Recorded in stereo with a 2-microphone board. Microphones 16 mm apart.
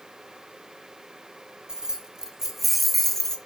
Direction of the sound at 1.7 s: 55° right (ahead or behind).